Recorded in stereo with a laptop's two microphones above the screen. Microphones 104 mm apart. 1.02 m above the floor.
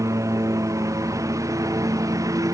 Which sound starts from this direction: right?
A lawn mower, at 0.0 s.